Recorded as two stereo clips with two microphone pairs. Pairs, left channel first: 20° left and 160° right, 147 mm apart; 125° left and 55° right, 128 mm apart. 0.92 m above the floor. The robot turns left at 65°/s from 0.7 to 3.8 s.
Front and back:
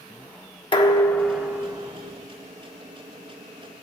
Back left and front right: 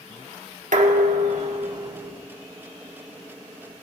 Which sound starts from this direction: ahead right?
Dishes clattering, at 0.7 s.